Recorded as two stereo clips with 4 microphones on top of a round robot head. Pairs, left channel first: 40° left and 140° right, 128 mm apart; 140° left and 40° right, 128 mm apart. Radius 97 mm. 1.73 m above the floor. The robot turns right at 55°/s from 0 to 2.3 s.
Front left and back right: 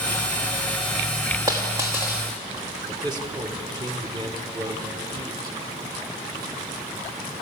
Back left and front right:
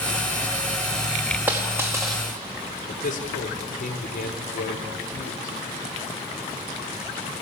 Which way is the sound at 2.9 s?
160° left.